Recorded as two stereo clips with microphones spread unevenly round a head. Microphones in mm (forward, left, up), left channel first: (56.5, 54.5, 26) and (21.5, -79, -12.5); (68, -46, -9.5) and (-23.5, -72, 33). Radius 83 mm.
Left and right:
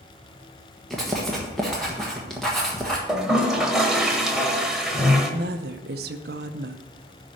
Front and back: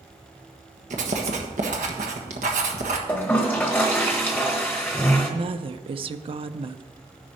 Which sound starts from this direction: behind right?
A woman speaking, at 5.3 s.